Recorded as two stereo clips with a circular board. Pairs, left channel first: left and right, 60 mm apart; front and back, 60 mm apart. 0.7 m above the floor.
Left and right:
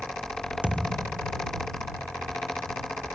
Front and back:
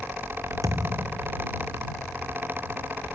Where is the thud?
160° right.